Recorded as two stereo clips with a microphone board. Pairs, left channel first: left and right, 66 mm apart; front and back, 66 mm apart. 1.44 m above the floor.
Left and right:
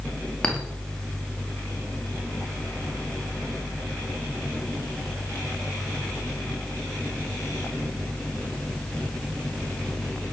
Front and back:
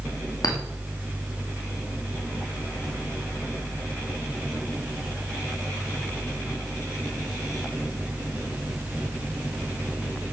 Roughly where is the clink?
Ahead.